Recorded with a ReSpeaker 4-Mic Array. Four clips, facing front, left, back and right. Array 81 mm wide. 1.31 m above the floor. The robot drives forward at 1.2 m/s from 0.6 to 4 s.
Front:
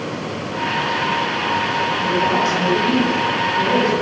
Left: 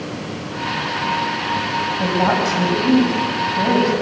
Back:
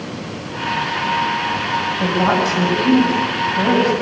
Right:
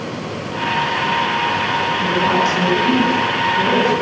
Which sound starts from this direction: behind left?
A woman speaking, at 2.0 s.